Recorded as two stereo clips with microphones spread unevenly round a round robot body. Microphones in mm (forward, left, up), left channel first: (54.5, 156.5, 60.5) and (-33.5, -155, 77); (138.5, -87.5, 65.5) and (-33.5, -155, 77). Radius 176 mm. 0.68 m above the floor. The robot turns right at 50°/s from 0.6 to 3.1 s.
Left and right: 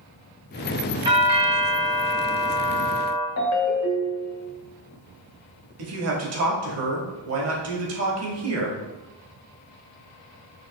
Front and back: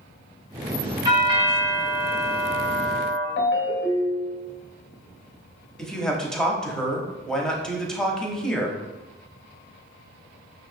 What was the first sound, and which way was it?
A doorbell, 165° right.